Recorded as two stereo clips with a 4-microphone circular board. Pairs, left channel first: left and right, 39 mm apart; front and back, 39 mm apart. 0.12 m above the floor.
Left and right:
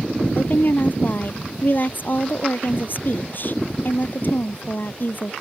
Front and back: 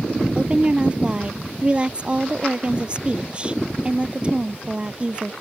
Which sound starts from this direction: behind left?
A woman speaking, at 0.3 s.